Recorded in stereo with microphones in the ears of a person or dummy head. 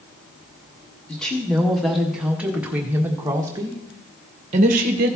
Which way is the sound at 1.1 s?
Centre (ahead or behind).